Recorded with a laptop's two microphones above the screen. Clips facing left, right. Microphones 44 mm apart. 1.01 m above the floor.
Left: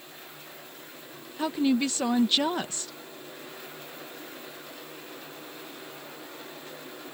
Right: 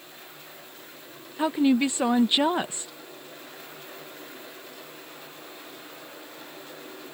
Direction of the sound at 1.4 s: 20° right (ahead or behind).